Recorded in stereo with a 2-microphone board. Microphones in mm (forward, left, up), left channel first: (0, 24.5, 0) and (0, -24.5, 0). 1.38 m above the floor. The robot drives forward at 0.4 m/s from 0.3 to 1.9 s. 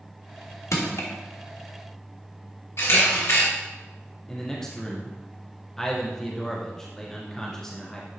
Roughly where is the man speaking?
Centre.